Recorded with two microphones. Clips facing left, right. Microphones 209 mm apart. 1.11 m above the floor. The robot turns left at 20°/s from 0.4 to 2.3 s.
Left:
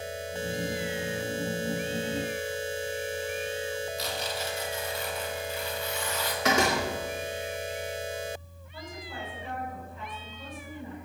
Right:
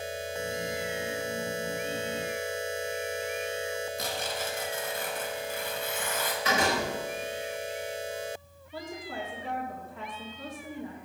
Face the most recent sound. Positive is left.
turn(degrees=-75)  # may be behind; listen again after turning